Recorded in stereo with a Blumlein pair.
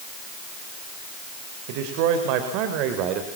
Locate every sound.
1.7 s a man speaking: 50° right, 3.5 m; by 3.3 s 35° right, 3 m